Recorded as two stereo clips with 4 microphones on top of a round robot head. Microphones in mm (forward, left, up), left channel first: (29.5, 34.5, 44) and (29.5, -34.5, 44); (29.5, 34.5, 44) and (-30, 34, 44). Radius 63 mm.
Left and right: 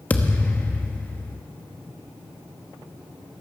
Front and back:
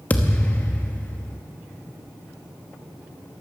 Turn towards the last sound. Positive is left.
turn(degrees=40)